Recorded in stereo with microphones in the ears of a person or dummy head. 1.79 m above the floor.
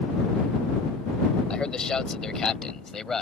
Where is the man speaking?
10° left (ahead or behind); by 3.2 s 5° left (ahead or behind).